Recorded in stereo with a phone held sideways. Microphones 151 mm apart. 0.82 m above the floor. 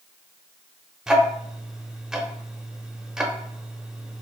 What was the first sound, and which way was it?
Ticking, 5° right (ahead or behind).